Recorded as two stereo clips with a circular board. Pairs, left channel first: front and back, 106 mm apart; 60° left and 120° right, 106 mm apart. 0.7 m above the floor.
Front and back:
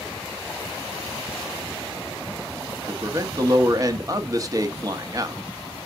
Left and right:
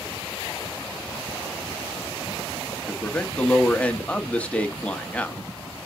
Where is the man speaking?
135° left, 1.0 m.